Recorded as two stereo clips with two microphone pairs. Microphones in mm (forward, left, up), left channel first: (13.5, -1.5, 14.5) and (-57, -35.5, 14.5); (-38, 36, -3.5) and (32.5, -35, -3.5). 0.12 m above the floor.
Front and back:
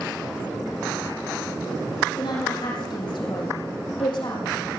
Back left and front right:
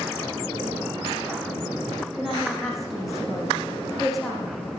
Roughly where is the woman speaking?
Ahead left.